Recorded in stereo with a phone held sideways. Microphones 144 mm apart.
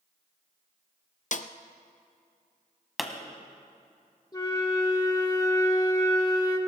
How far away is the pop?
About 1.4 m.